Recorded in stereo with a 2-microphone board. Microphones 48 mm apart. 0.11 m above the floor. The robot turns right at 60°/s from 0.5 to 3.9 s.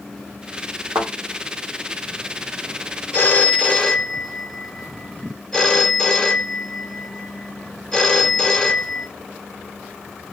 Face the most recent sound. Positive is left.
turn(degrees=160)